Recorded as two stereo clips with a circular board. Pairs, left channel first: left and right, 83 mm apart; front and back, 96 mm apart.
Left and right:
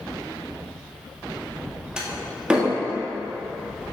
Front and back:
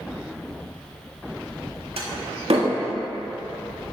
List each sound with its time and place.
2.0 s a door slam: 170° right, 1.2 m